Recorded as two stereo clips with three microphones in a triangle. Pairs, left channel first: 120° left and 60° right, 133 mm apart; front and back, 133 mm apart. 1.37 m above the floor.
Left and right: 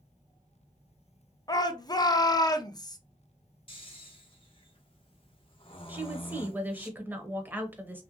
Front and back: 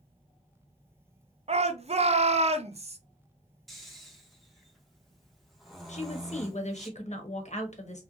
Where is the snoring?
90° left, 0.7 m.